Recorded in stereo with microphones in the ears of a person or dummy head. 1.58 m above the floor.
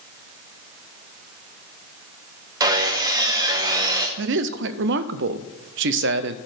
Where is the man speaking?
60° right (ahead or behind), 0.5 m.